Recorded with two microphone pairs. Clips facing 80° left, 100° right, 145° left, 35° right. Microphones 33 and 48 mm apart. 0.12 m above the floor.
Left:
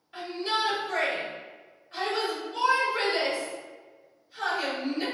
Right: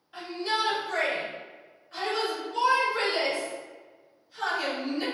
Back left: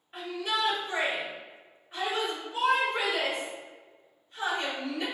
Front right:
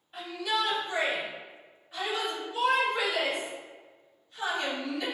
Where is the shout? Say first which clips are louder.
Even, front right 1 dB; 165° left, 1.7 m.